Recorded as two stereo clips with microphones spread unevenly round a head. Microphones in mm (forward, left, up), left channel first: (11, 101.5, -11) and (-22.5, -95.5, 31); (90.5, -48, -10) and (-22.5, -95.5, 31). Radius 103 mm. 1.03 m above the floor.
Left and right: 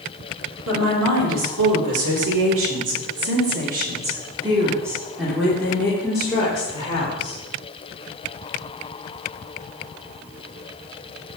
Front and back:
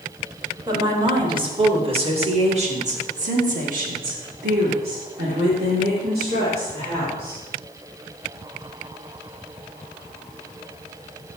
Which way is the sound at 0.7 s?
100° right.